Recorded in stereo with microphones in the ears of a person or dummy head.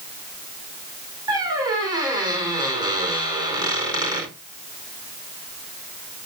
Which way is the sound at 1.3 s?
20° right (ahead or behind).